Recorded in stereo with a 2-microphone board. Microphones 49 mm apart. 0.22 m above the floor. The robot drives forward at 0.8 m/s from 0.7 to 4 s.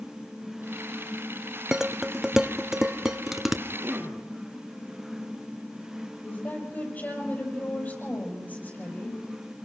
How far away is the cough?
About 4.5 m.